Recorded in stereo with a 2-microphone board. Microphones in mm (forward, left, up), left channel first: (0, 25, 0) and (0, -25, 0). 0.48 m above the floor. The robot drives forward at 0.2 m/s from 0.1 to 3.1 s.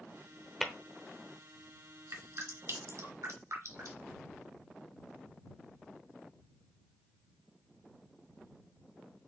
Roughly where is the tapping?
Centre.